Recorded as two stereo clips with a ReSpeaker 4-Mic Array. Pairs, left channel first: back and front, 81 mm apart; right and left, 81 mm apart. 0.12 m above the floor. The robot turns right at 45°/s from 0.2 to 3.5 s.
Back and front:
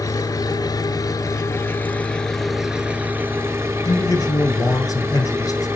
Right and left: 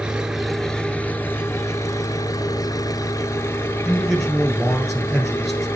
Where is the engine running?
165° left, 0.7 m; by 5.8 s 45° right, 0.7 m.